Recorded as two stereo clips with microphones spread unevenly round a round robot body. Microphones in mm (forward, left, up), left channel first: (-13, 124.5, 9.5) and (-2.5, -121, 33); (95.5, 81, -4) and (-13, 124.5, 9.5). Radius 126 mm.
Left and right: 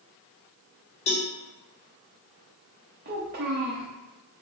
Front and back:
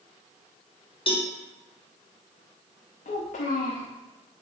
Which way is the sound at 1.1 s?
25° left.